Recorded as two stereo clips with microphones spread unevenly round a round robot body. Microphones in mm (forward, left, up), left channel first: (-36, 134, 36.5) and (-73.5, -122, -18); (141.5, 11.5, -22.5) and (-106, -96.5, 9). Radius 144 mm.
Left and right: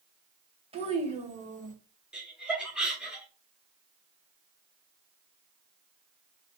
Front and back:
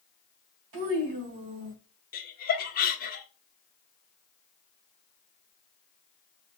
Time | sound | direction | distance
0.7 | a child speaking | 165° right | 1.9 m
2.1 | laughter | 20° right | 1.2 m